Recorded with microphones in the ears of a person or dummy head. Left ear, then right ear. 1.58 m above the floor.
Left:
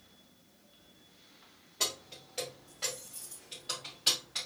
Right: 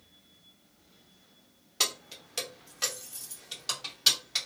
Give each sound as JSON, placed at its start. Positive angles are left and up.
{"t": 1.8, "sound": "keys jangling", "side_deg": -60, "distance_m": 1.2}